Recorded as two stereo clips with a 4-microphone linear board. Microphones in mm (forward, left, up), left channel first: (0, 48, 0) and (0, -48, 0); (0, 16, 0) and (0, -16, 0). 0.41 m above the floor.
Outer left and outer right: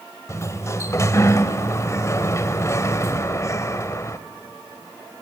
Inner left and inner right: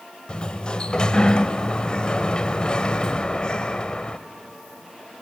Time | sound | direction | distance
0.3 | a sliding door | 30° left (ahead or behind) | 0.9 m